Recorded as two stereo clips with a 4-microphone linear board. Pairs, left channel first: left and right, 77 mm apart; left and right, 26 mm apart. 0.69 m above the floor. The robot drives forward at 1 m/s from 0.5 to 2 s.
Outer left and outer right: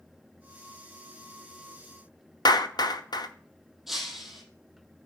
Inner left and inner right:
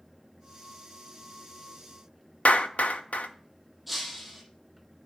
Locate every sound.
2.5 s a clap: 70° left (ahead or behind), 1.1 m
3.9 s breaking glass: centre (ahead or behind), 5 m